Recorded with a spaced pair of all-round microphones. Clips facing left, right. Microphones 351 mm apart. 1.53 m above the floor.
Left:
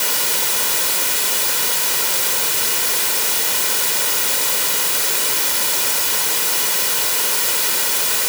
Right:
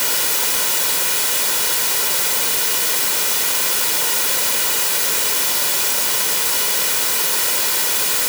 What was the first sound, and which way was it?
Only background noise.